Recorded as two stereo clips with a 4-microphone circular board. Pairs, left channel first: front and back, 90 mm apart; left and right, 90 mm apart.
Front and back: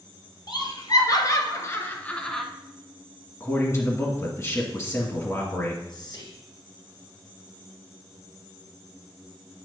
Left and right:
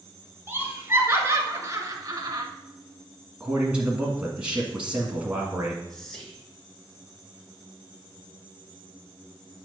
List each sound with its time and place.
0.5 s laughter: 25° right, 2.5 m; by 2.5 s 90° right, 1.3 m
3.4 s a man speaking: 20° right, 1.6 m
5.9 s whispering: 5° left, 2 m